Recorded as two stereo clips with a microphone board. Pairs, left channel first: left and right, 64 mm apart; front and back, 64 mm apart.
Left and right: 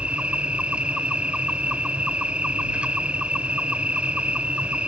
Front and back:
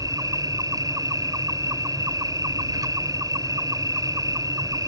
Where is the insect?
160° right.